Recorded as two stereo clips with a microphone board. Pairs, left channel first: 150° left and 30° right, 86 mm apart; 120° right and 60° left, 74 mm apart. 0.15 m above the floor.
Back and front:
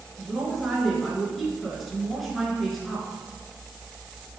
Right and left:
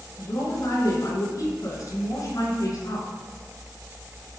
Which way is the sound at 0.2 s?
120° right.